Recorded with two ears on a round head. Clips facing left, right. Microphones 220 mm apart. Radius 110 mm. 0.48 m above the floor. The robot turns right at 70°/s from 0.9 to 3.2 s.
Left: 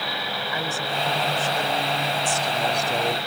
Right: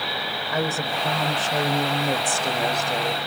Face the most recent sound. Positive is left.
turn(degrees=25)